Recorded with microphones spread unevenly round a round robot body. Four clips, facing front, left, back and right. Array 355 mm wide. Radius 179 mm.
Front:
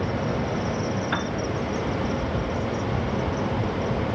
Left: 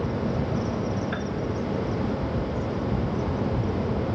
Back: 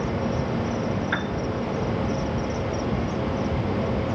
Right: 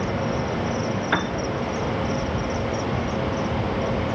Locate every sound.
1.1 s a piano: 85° right, 1.5 m